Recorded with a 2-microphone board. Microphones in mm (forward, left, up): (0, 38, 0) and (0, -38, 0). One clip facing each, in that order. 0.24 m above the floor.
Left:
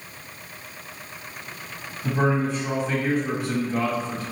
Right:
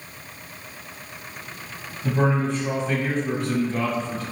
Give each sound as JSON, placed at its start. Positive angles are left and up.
{"t": 2.0, "sound": "a man speaking", "side_deg": 10, "distance_m": 1.4}